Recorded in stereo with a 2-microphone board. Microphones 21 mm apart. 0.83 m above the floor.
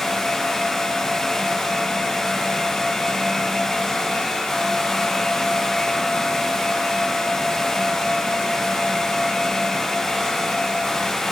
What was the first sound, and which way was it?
Only background noise.